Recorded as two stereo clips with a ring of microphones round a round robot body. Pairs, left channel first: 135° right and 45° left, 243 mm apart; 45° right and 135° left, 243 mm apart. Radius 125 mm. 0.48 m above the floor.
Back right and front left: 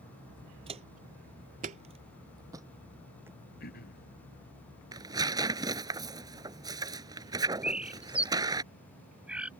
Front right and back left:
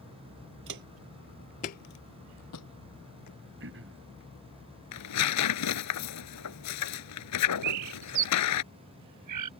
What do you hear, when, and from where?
0.7 s footsteps: 110° left; by 3.4 s 35° right
3.6 s throat clearing: 175° left
4.9 s tearing paper: 30° right
7.6 s a bird: 130° left